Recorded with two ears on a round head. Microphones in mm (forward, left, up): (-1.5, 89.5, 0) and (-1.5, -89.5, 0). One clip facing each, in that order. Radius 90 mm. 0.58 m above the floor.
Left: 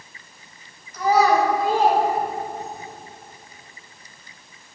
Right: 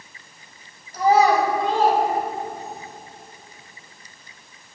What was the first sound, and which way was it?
A child speaking, 30° right (ahead or behind).